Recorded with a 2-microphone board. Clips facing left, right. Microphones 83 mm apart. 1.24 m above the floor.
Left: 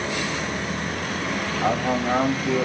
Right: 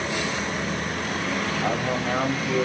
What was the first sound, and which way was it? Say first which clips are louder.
A man speaking: left 6 dB; 40° left (ahead or behind).